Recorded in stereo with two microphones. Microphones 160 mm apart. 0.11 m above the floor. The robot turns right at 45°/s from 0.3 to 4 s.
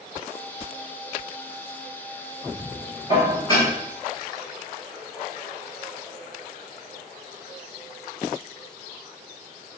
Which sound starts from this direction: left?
Dishes clattering, at 3.1 s.